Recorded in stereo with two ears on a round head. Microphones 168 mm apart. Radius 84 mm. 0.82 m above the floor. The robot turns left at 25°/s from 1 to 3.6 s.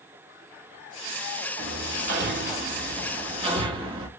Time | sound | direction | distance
1.6 | hammering | 75° right (ahead or behind) | 1.2 m